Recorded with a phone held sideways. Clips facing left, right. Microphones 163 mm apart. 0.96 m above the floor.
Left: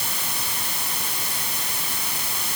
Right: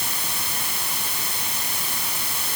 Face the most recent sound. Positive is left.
No sound to turn to.